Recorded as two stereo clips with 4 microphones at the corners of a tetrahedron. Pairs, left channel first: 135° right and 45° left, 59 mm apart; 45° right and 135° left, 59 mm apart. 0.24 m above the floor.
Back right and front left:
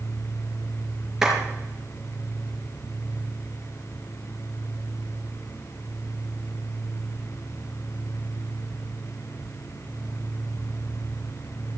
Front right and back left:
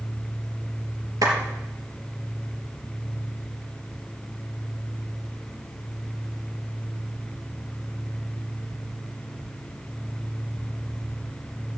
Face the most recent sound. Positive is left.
turn(degrees=125)